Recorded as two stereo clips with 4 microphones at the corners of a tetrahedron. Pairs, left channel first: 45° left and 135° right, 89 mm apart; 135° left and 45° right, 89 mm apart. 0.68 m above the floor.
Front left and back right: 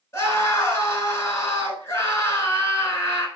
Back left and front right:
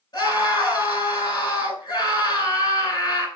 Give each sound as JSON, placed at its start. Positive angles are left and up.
{"t": 0.1, "sound": "a scream", "azimuth_deg": 100, "distance_m": 5.5}